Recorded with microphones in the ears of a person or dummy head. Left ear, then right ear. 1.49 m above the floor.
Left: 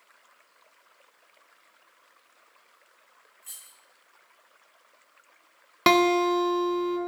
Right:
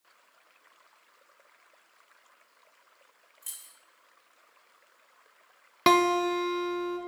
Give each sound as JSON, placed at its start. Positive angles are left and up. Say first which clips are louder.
{"t": 3.4, "sound": "keys jangling", "louder": "right 1 dB", "side_deg": -25, "distance_m": 1.3}
{"t": 5.9, "sound": "a guitar", "louder": "left 2 dB", "side_deg": 5, "distance_m": 0.8}